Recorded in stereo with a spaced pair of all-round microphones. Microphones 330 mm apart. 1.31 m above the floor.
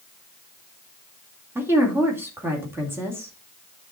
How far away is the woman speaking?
About 2.5 m.